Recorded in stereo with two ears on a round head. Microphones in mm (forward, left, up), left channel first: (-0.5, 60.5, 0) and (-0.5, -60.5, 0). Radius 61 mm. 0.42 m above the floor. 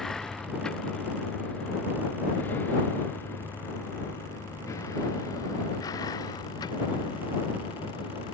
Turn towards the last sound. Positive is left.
turn(degrees=35)  # may be behind; listen again after turning